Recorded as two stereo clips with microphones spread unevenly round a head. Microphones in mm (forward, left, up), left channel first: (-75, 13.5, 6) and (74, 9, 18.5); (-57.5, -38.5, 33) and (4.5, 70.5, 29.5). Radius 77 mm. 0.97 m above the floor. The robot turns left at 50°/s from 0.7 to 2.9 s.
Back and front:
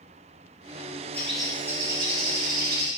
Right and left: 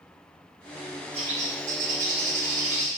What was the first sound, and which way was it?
A bird, 100° left.